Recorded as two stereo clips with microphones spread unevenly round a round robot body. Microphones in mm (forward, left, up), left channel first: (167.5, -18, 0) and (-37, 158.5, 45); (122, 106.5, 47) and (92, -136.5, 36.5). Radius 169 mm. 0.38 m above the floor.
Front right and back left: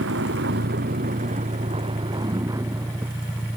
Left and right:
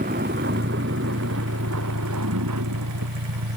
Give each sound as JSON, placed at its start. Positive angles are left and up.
{"t": 0.0, "sound": "a vehicle", "azimuth_deg": -165}